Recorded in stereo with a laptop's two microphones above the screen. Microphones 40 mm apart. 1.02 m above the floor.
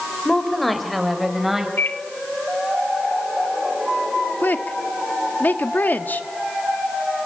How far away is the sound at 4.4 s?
About 1.5 m.